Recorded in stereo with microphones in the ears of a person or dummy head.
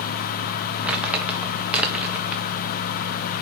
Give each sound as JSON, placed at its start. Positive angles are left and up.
{"t": 0.8, "sound": "crumpling", "side_deg": -5, "distance_m": 1.3}